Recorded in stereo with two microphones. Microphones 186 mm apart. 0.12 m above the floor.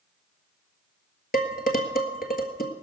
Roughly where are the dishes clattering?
Left.